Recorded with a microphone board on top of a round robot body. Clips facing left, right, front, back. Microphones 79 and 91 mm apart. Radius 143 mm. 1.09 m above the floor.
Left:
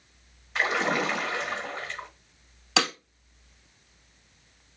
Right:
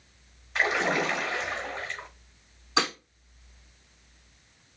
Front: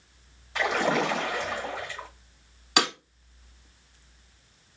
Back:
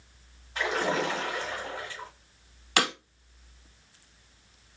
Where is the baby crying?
I don't hear a baby crying.